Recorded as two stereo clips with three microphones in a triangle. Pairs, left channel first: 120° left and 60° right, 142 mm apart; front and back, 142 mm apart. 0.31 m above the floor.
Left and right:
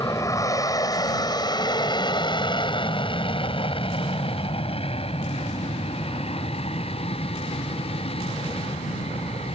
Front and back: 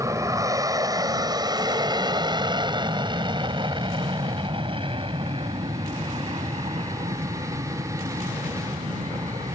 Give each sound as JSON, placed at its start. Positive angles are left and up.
{"t": 0.0, "sound": "an aircraft", "azimuth_deg": 150}